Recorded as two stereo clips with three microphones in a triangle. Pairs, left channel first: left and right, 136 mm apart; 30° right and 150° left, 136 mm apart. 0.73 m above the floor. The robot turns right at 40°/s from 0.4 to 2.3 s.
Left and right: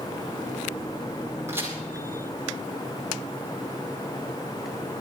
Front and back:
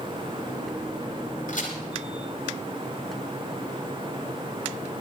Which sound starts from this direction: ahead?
A crack, at 1.5 s.